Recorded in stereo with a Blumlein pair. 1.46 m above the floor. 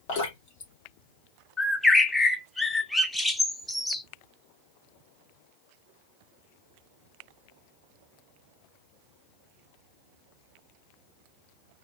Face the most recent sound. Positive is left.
turn(degrees=5)